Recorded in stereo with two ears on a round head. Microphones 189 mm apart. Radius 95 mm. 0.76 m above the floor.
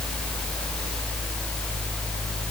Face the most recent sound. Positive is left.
No sound to turn to.